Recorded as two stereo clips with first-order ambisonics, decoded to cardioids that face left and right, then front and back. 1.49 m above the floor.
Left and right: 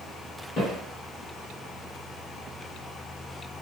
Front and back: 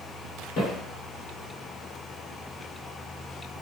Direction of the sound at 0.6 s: 30° left.